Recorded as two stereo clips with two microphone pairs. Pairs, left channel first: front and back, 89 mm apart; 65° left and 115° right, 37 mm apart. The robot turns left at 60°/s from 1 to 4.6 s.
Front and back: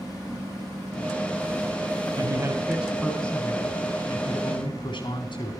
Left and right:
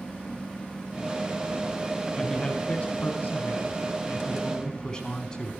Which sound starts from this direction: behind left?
A man speaking, at 2.2 s.